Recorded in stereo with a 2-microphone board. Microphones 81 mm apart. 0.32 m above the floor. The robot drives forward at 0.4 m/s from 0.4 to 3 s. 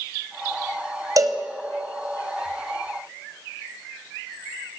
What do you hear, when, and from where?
1.2 s a cowbell: 45° right (ahead or behind), 2.0 m